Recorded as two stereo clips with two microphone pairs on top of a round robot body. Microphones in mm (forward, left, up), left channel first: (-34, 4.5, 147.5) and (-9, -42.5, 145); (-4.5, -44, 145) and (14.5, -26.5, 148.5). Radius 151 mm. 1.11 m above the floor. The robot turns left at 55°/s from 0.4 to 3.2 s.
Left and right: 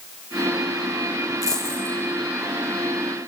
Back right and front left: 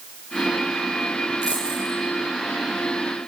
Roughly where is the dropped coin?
Left.